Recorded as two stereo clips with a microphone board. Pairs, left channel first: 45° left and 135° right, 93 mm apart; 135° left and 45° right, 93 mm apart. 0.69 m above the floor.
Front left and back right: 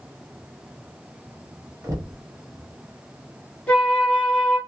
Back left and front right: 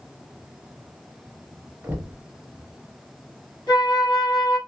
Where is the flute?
120° left, 1.6 m.